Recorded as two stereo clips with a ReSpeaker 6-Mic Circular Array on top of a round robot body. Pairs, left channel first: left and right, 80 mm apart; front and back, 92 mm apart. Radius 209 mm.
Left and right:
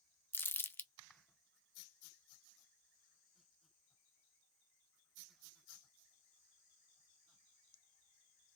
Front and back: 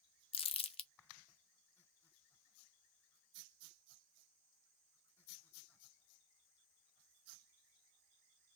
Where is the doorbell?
I don't hear a doorbell.